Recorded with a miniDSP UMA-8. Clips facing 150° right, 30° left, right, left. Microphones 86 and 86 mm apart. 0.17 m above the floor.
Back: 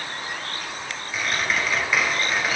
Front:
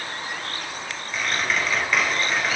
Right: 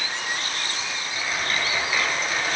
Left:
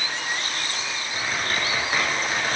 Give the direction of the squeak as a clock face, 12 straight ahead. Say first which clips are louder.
Even, even; 8 o'clock.